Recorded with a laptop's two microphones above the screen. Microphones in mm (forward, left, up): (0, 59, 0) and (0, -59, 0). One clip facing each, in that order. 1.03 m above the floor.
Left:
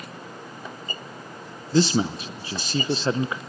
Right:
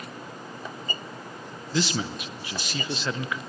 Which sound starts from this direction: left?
A man speaking, at 1.7 s.